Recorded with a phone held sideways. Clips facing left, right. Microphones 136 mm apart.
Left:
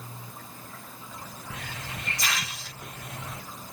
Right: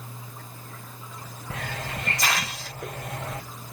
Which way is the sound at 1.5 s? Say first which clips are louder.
Right 7 dB; 60° right (ahead or behind).